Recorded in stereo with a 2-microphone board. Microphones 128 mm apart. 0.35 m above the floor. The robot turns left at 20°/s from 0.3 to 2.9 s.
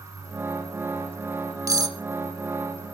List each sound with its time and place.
1.7 s cutlery clinking: 25° right (ahead or behind), 1.2 m; by 2.0 s 30° right (ahead or behind), 1.2 m